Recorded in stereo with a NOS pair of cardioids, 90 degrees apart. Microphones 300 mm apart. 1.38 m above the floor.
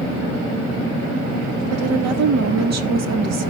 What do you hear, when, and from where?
1.7 s a woman speaking: 60° right, 3.5 m